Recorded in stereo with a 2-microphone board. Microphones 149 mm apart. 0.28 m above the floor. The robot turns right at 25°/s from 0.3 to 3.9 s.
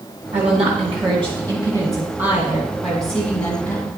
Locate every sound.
0.3 s a woman speaking: 65° right, 2.5 m; by 3.9 s 25° left, 2.5 m